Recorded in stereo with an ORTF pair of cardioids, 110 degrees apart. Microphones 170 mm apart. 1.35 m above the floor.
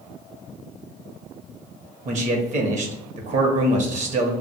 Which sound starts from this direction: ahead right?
A man speaking, at 2.0 s.